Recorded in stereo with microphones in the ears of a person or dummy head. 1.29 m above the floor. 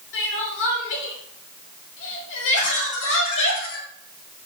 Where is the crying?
70° left (ahead or behind), 2 m.